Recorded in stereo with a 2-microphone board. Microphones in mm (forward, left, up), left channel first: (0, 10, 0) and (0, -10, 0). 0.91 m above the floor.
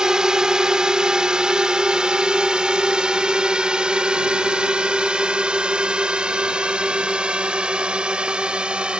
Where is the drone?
40° right (ahead or behind); by 9.0 s 75° right (ahead or behind).